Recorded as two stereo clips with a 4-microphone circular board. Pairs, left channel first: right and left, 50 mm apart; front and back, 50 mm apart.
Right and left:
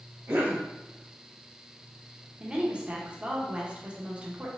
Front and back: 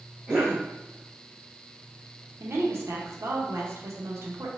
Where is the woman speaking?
155° left, 1.0 m.